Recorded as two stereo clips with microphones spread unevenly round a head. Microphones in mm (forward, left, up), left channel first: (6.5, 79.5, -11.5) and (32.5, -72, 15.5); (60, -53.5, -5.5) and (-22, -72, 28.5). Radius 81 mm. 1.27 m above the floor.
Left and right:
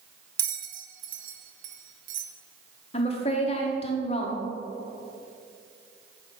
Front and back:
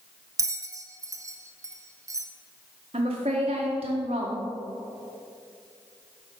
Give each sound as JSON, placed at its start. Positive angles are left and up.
{"t": 0.4, "sound": "a bell", "azimuth_deg": -120, "distance_m": 0.8}
{"t": 2.9, "sound": "a woman speaking", "azimuth_deg": 150, "distance_m": 1.1}